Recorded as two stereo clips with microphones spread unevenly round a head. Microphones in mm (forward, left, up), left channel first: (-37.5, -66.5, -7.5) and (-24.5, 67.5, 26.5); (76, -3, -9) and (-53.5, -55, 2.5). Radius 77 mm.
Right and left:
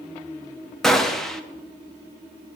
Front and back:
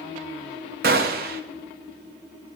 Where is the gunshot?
175° right, 1.1 m.